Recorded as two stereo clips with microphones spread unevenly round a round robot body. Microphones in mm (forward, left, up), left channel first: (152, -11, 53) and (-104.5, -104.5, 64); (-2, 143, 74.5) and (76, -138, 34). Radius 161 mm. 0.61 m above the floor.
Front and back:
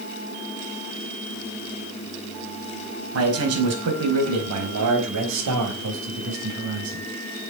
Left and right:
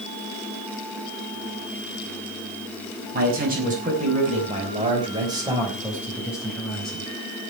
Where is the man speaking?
130° right, 5 m; by 7.1 s 165° right, 4 m.